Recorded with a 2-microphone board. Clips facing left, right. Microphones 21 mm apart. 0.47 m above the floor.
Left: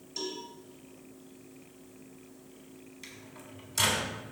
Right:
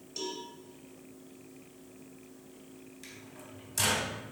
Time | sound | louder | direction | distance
0.2 | a cowbell | left 1 dB | 5° right (ahead or behind) | 2 m
3.0 | a microwave | left 1 dB | 5° left (ahead or behind) | 3.5 m